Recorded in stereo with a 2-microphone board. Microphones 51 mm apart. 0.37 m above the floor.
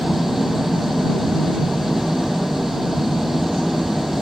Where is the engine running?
5° right (ahead or behind).